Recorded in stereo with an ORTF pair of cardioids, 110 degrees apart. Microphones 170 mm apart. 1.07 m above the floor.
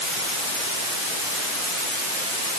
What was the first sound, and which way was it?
Only background noise.